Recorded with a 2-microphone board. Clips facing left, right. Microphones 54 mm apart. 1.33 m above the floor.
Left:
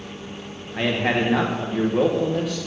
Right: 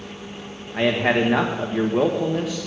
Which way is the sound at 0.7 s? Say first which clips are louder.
Right 2 dB; 15° right (ahead or behind).